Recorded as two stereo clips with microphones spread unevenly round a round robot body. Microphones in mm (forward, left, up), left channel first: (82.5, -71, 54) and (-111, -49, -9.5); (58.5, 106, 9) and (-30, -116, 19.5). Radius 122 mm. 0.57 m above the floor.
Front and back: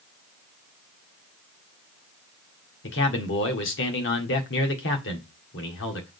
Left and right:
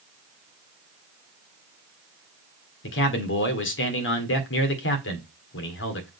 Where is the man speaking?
40° left, 1.8 m.